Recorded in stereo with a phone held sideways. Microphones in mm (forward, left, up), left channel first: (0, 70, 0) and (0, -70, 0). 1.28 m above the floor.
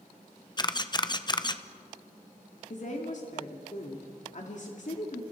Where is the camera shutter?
30° left (ahead or behind), 0.8 m.